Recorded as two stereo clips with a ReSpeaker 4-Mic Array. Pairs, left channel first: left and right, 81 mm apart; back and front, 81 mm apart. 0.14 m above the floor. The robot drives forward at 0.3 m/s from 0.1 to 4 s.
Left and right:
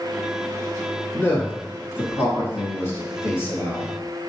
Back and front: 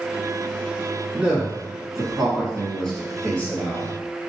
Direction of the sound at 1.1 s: 60° left.